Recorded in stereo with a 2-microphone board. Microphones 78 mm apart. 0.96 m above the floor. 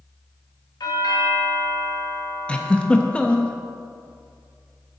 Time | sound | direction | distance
0.8 | a doorbell | 65° left (ahead or behind) | 1.9 m
2.5 | a giggle | 15° left (ahead or behind) | 0.8 m